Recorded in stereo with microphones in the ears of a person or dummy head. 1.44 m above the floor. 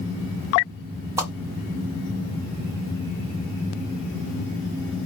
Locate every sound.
1.2 s a whoosh: 10° right (ahead or behind), 1.0 m